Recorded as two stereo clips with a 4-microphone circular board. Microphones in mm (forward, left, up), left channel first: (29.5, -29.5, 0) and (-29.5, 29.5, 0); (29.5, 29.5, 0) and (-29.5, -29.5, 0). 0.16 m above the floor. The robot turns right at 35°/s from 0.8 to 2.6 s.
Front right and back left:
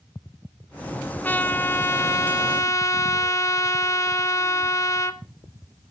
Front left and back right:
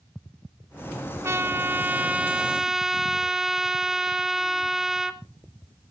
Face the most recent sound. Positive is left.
turn(degrees=-55)